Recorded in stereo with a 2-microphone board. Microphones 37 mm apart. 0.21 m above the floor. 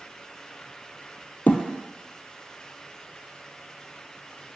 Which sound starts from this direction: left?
A thud, at 1.5 s.